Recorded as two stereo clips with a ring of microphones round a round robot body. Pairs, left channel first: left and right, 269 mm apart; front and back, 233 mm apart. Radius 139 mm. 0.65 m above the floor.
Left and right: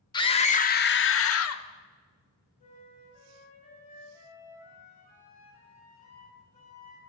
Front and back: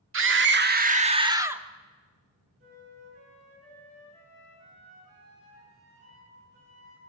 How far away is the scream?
About 1.7 m.